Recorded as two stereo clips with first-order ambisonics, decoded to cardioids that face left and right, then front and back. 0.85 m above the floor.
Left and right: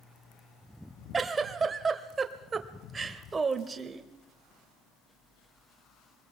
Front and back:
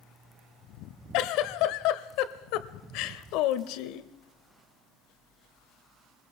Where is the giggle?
20° right, 1.1 m.